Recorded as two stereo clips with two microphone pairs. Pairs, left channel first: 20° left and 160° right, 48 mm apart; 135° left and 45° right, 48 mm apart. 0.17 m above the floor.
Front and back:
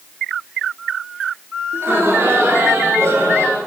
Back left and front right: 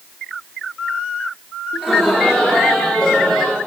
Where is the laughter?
130° right, 1.9 m.